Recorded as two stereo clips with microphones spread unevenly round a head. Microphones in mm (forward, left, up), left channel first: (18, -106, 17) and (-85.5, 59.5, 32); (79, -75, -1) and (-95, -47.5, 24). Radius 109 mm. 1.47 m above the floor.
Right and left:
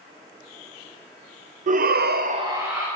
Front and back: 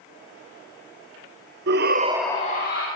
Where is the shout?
170° left, 0.9 m; by 2.9 s 35° left, 1.1 m.